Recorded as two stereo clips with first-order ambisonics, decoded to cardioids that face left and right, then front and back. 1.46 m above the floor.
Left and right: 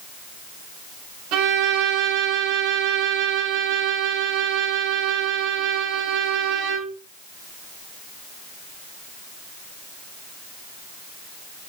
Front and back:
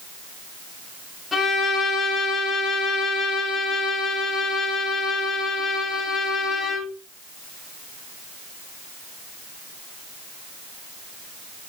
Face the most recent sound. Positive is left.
turn(degrees=-80)